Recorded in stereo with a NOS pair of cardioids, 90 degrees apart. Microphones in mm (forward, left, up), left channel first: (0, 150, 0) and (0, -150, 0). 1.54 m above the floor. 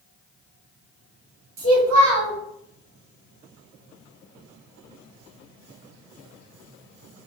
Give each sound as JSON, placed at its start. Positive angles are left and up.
{"t": 1.6, "sound": "a child speaking", "azimuth_deg": -70, "distance_m": 1.0}